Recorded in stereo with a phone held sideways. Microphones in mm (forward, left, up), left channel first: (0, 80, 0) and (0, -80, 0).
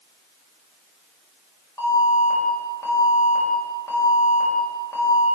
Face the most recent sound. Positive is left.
turn(degrees=20)  # may be behind; listen again after turning